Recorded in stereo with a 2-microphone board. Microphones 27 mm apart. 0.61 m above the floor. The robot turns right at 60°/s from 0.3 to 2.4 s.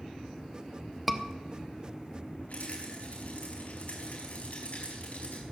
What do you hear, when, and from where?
1.1 s a scream: centre (ahead or behind), 1.1 m; by 1.2 s 5° left (ahead or behind), 1.1 m
2.5 s a rattle: 65° left (ahead or behind), 5 m